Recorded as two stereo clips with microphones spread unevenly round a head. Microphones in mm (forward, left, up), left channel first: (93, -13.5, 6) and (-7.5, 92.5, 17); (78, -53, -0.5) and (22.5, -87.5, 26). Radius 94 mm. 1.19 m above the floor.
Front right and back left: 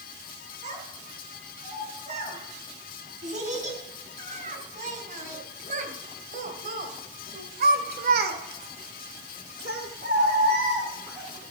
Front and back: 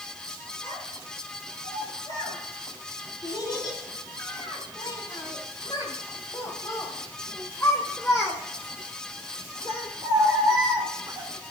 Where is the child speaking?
90° left, 8 m; by 11.3 s 145° right, 1.8 m.